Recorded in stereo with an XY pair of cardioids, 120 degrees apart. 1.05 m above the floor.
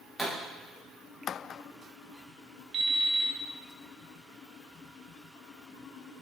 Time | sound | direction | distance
0.2 | a pop | 5° left | 4 m
2.7 | an alarm clock | 35° right | 2.5 m